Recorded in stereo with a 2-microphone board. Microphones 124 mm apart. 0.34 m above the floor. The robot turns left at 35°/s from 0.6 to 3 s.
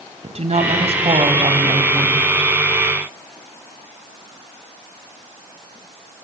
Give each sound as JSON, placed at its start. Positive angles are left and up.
{"t": 0.2, "sound": "a woman speaking", "azimuth_deg": -100, "distance_m": 2.5}